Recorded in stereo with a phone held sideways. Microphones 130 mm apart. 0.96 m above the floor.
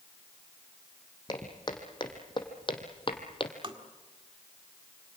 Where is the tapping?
40° right (ahead or behind), 1.7 m.